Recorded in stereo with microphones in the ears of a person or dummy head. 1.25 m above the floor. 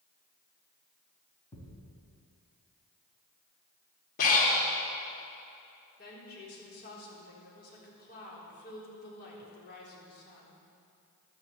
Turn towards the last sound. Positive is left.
turn(degrees=55)  # may be behind; listen again after turning